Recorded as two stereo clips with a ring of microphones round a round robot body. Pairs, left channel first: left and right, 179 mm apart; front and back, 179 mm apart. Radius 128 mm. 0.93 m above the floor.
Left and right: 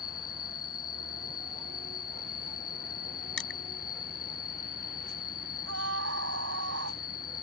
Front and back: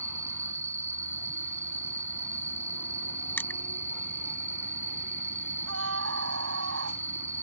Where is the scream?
135° right.